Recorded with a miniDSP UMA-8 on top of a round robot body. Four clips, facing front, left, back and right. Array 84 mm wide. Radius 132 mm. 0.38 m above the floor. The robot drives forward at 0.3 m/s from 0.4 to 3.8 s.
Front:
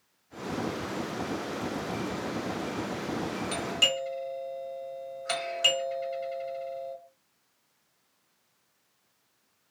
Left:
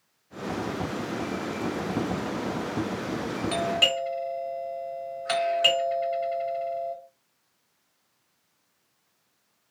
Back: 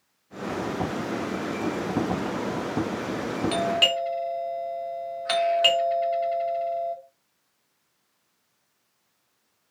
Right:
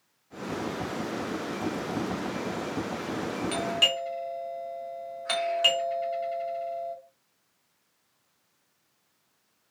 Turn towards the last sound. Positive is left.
turn(degrees=-175)